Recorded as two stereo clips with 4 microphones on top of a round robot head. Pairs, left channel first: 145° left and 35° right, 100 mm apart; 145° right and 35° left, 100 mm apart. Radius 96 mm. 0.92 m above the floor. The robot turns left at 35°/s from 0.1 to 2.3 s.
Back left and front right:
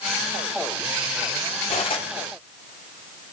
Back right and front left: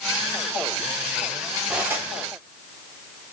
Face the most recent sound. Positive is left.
turn(degrees=95)